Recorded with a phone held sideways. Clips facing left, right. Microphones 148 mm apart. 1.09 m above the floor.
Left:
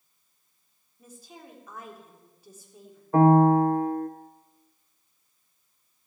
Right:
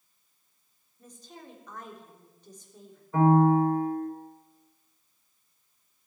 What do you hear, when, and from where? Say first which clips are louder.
1.0 s a woman speaking: even; 5° left (ahead or behind), 3.5 m
3.1 s a piano: left 3 dB; 50° left (ahead or behind), 1.0 m